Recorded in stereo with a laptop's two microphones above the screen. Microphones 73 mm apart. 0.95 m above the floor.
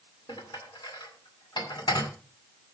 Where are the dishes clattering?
75° left (ahead or behind), 2 m.